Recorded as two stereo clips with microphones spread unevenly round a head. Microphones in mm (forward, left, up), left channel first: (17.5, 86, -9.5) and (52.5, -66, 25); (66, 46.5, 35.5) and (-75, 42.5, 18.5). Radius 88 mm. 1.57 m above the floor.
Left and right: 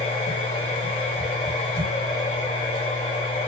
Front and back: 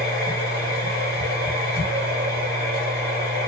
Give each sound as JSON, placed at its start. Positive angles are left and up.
{"t": 0.0, "sound": "a machine running", "azimuth_deg": 165, "distance_m": 2.0}